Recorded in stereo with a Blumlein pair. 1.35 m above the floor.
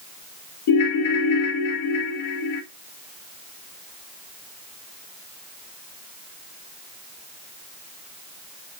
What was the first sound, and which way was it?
A ringtone, 50° left.